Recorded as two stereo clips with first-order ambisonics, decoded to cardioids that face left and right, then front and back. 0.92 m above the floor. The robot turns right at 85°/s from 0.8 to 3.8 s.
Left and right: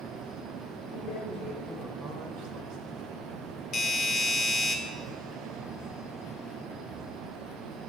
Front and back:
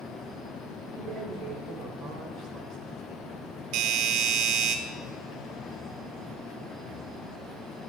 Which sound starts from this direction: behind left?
A doorbell, at 3.7 s.